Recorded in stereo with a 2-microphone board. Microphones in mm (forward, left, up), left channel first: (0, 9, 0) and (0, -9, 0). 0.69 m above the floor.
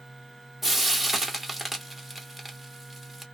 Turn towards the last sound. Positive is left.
turn(degrees=-5)  # may be behind; listen again after turning